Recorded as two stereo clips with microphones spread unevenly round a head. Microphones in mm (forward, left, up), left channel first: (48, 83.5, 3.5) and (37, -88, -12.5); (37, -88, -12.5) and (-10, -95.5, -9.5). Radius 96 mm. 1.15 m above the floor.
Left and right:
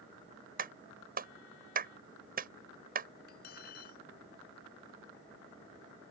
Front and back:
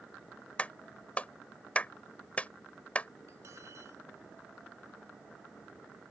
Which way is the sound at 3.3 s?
135° left.